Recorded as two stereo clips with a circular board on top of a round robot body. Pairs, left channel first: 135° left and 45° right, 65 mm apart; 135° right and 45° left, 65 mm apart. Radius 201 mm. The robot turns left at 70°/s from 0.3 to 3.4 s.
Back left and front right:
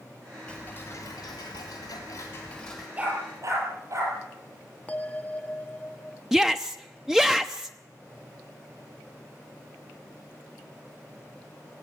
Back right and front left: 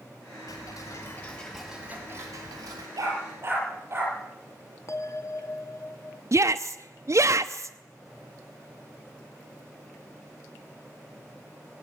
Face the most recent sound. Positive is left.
turn(degrees=35)